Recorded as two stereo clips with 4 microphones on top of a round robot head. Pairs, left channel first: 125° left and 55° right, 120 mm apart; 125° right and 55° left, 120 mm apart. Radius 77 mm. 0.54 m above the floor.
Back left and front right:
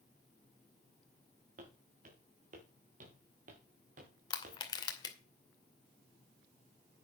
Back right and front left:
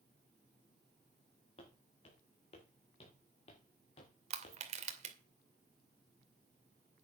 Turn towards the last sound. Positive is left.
turn(degrees=70)